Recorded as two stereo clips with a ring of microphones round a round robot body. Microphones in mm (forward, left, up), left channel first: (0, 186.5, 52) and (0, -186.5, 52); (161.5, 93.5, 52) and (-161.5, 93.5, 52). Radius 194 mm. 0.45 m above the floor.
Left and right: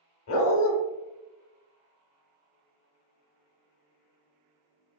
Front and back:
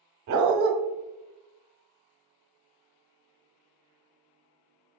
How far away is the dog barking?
About 0.7 m.